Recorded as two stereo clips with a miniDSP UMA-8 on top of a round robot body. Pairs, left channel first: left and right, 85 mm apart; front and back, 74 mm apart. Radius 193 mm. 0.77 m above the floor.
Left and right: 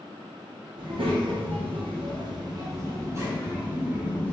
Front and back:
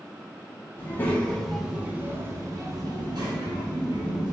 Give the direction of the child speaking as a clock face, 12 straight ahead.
2 o'clock.